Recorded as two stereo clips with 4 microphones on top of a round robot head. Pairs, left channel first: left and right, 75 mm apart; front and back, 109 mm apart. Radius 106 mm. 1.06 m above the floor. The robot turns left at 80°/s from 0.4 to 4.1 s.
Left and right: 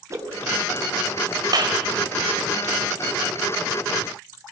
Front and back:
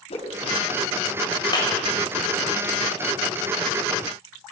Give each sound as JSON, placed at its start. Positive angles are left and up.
{"t": 0.1, "sound": "a whoosh", "azimuth_deg": -40, "distance_m": 4.5}
{"t": 1.5, "sound": "a clap", "azimuth_deg": -55, "distance_m": 4.0}